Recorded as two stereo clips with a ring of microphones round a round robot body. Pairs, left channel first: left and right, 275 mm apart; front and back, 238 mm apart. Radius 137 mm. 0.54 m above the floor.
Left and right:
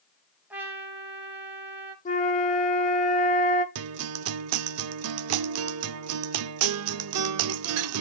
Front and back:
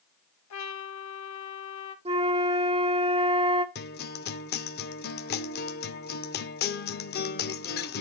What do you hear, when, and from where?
0.5 s a trumpet: 5° right, 1.6 m
2.0 s a flute: 130° left, 1.5 m
3.8 s a guitar: 55° right, 0.5 m